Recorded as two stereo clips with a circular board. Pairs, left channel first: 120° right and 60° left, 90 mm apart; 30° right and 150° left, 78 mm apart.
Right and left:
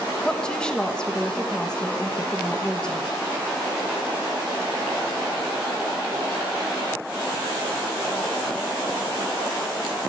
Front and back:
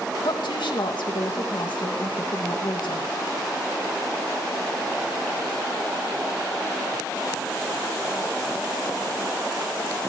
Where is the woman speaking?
40° right, 2 m.